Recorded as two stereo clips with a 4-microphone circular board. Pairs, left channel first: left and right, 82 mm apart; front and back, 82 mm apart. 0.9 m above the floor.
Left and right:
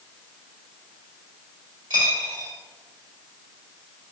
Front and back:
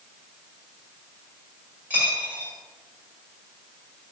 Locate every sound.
1.9 s a dropped coin: 110° right, 1.7 m